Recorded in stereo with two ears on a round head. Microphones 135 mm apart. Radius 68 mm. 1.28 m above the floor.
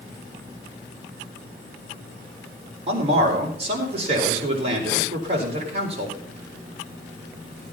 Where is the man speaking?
40° right (ahead or behind), 4 m.